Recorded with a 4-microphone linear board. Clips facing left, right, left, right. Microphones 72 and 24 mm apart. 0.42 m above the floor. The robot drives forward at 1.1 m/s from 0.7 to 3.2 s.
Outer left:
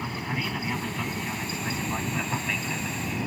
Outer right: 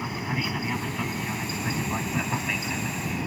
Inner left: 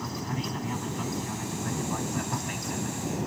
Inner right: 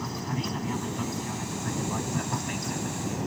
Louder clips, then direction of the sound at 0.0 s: Outer right 1 dB, inner right 1 dB; 5° right (ahead or behind).